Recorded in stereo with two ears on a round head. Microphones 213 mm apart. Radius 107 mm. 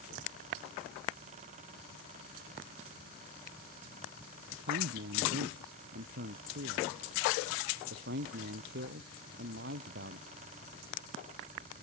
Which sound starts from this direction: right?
A man speaking, at 4.5 s.